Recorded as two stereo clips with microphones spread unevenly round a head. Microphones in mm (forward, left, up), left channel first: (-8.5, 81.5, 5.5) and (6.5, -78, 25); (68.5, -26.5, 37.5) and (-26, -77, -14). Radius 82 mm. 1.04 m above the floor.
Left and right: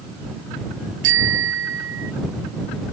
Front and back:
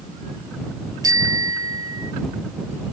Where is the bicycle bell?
95° right.